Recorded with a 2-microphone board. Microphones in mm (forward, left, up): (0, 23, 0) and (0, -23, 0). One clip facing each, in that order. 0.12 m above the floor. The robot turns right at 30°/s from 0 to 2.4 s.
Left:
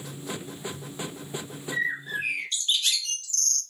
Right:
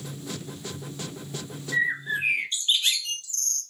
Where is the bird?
10° right (ahead or behind), 0.5 m; by 3.6 s 30° right (ahead or behind), 0.5 m.